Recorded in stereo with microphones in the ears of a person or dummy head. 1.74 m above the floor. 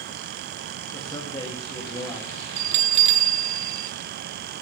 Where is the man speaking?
20° left (ahead or behind), 4 m.